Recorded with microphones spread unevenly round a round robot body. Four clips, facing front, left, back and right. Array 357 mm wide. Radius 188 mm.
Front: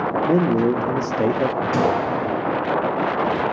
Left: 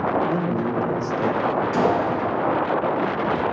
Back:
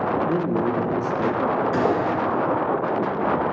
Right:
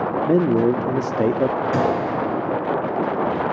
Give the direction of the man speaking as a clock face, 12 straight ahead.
2 o'clock.